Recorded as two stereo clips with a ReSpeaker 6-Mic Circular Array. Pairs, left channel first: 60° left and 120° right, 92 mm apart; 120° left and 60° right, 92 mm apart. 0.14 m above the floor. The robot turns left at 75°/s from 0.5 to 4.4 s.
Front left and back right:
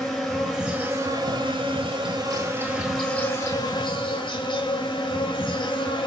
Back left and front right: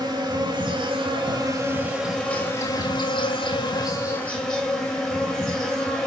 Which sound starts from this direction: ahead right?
An insect, at 0.0 s.